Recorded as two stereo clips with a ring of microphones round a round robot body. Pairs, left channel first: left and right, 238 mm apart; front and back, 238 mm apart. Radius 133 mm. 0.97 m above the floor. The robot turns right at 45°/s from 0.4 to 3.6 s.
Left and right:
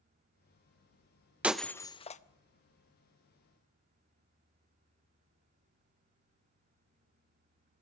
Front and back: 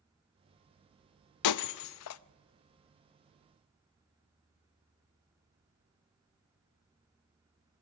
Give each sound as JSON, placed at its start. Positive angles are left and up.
{"t": 1.4, "sound": "breaking glass", "azimuth_deg": -5, "distance_m": 0.5}